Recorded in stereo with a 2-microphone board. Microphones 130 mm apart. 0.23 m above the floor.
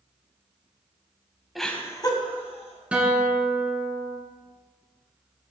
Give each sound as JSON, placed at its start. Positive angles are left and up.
{"t": 1.6, "sound": "laughter", "side_deg": 0, "distance_m": 1.3}
{"t": 2.9, "sound": "a guitar", "side_deg": -10, "distance_m": 1.8}